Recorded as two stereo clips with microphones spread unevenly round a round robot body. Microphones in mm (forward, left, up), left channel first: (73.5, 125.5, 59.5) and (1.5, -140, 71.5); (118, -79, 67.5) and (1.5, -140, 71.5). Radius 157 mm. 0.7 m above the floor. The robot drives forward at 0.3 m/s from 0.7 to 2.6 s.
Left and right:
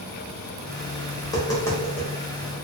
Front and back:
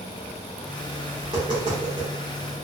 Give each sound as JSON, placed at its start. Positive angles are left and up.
{"t": 1.2, "sound": "tapping", "azimuth_deg": 145, "distance_m": 0.5}